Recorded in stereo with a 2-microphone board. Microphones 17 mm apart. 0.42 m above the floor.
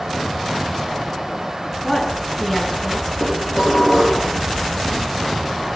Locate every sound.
1.8 s a woman speaking: 10° right (ahead or behind), 4.5 m
3.2 s dishes clattering: 35° right (ahead or behind), 7 m